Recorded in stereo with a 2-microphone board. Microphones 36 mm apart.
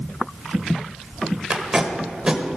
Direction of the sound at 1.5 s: 20° right (ahead or behind).